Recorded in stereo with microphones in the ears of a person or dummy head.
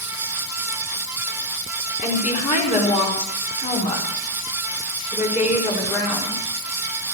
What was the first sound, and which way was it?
A woman speaking, 30° left (ahead or behind).